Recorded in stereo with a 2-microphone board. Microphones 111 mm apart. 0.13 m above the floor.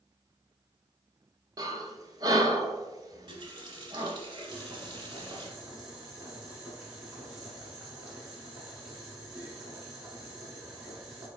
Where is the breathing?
35° right (ahead or behind), 0.5 m.